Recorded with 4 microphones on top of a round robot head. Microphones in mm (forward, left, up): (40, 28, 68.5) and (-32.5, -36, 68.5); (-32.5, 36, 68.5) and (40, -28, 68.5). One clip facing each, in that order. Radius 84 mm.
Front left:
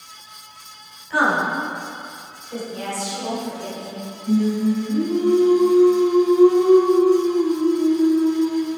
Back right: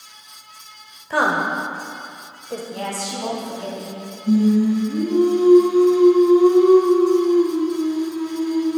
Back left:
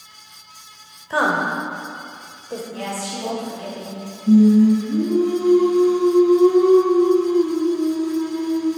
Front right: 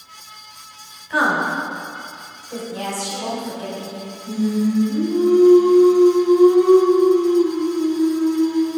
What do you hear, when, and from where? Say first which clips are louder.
1.1 s a woman speaking: even, front right 1 dB; 170° right, 2.5 m
2.7 s a woman speaking: even, front right 3 dB; 110° right, 4 m
4.3 s singing: back right 3 dB, back left 8 dB; 165° left, 4.5 m